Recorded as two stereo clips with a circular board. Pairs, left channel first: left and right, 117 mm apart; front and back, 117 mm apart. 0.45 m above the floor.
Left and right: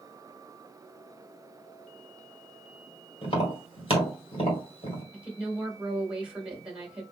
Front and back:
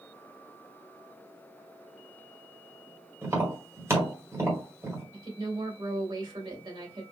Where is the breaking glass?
I don't hear breaking glass.